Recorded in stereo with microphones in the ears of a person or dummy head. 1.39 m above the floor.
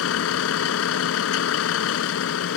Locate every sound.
0.0 s a vehicle: 80° left